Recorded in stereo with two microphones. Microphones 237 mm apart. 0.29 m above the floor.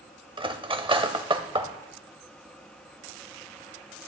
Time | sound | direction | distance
0.4 | cutlery clinking | 20° right (ahead or behind) | 0.7 m